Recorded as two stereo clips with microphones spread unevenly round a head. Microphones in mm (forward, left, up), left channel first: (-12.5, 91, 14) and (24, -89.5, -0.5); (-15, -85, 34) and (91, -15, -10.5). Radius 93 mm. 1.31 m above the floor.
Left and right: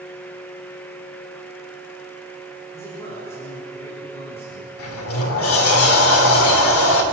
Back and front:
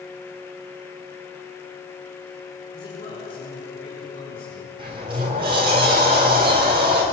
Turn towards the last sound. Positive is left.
turn(degrees=100)